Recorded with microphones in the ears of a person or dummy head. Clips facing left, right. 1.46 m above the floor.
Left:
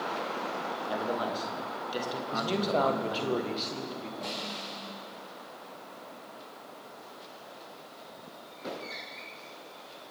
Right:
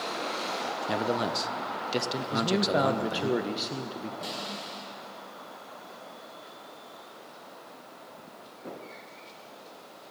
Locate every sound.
0.9 s a man speaking: 30° right (ahead or behind), 0.5 m
2.3 s a man speaking: 10° right (ahead or behind), 0.7 m
4.2 s a snare drum: 15° right (ahead or behind), 4.5 m